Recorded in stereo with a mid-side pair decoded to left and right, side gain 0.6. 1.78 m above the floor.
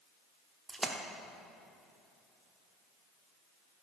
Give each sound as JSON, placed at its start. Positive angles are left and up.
{"t": 0.7, "sound": "a splash", "azimuth_deg": -15, "distance_m": 1.0}